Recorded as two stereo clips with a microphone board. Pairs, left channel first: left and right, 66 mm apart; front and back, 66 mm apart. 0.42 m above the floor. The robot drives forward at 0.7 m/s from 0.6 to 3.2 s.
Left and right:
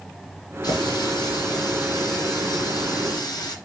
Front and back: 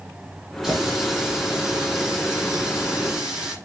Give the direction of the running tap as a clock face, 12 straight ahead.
9 o'clock.